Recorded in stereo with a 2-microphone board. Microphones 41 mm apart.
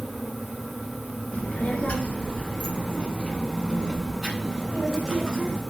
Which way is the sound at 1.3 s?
40° left (ahead or behind).